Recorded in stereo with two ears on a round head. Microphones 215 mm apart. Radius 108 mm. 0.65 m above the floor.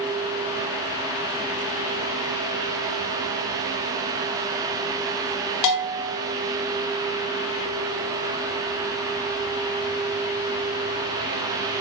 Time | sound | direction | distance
5.6 | a bell | 85° left | 0.6 m